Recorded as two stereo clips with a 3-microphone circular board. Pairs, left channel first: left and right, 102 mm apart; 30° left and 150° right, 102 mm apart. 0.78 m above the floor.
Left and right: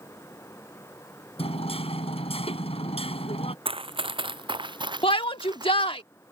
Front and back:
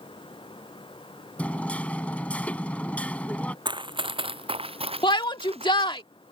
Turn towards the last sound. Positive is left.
turn(degrees=65)